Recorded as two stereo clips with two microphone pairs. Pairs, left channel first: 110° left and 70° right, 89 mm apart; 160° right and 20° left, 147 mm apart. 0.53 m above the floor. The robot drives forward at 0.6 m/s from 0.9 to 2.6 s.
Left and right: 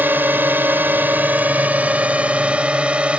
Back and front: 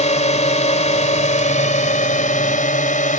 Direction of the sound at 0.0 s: 135° right.